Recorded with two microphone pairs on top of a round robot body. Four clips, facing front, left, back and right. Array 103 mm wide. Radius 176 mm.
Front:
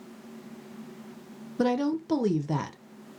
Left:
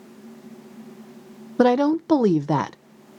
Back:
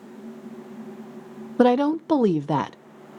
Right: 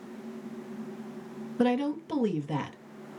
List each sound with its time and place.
1.6 s a woman speaking: 130° left, 0.5 m